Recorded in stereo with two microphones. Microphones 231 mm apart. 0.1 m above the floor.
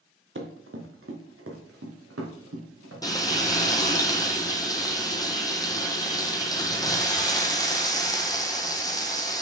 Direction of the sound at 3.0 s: 15° left (ahead or behind).